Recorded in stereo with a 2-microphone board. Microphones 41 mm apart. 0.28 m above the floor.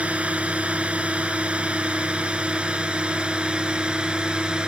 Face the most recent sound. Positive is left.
turn(degrees=-25)  # may be behind; listen again after turning